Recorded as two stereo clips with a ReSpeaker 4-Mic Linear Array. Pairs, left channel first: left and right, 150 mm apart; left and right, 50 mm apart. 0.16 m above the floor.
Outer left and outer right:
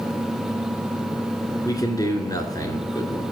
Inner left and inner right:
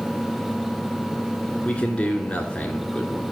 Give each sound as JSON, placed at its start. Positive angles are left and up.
{"t": 1.6, "sound": "a man speaking", "side_deg": 25, "distance_m": 2.0}